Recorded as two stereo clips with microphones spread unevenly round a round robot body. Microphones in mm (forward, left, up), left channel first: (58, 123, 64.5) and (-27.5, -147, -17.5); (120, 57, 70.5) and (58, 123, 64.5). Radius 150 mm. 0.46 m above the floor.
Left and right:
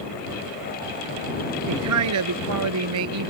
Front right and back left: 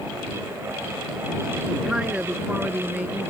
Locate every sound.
1.7 s a man speaking: 140° right; by 3.3 s 145° right